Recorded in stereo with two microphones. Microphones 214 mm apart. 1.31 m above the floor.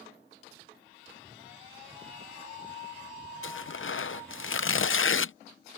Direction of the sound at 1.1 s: 15° right (ahead or behind).